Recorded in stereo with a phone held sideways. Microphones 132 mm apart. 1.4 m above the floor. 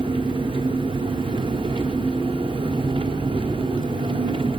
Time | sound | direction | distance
0.0 | an engine running | 40° right (ahead or behind) | 1.2 m